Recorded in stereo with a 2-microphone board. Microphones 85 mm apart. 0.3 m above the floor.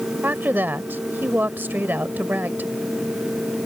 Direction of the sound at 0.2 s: 25° right (ahead or behind).